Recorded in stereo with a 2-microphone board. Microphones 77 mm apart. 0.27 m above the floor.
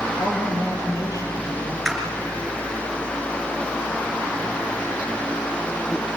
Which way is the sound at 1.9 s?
5° right (ahead or behind).